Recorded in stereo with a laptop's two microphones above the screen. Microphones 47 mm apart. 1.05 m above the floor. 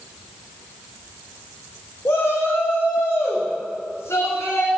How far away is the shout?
About 1.0 m.